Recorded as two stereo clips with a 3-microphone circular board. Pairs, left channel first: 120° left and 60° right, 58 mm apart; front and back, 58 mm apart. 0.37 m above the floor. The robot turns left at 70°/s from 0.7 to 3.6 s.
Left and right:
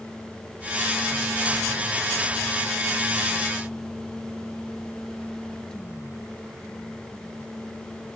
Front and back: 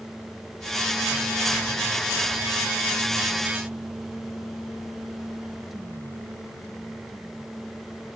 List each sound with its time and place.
Only background noise.